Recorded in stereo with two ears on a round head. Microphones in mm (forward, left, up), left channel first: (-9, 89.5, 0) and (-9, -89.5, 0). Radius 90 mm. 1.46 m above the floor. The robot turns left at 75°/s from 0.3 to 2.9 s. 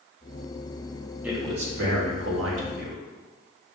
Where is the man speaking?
5° right, 0.9 m; by 3.0 s 130° right, 0.9 m.